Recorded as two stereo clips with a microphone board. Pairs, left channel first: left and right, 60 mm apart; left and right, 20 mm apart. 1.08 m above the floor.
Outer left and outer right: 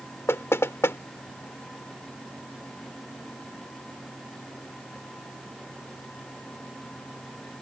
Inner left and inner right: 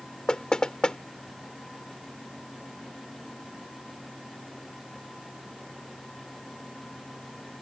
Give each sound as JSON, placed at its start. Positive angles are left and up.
{"t": 0.3, "sound": "knocking", "side_deg": 45}